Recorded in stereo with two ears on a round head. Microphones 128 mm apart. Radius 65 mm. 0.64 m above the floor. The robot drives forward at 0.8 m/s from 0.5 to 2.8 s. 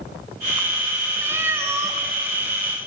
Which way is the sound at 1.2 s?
15° right (ahead or behind).